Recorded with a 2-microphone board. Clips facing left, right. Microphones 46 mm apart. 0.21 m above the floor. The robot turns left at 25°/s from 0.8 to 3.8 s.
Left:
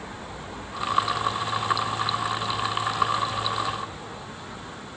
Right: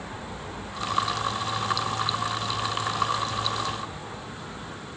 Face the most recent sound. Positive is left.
No sound to turn to.